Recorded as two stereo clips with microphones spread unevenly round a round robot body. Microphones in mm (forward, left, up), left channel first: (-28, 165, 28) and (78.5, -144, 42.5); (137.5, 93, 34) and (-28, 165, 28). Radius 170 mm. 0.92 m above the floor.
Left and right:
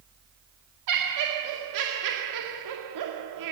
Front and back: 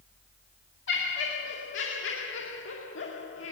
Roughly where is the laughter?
Ahead right.